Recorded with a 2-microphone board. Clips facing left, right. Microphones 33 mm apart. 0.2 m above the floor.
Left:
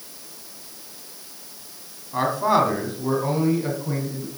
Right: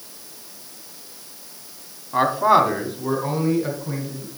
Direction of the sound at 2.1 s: 25° right (ahead or behind).